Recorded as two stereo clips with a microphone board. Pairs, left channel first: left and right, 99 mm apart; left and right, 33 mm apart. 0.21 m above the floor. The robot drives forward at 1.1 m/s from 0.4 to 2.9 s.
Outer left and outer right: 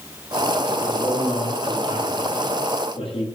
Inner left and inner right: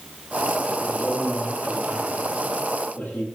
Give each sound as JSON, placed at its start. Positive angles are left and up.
{"t": 0.8, "sound": "a man speaking", "side_deg": 80, "distance_m": 8.5}